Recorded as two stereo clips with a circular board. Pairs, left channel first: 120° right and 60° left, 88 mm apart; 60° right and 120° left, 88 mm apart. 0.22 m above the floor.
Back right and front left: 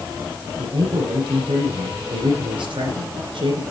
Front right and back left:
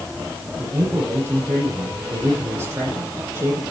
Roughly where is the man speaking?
Ahead left.